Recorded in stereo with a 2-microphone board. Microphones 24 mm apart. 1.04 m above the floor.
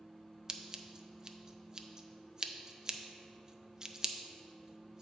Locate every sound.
0.5 s scissors: 25° right (ahead or behind), 0.5 m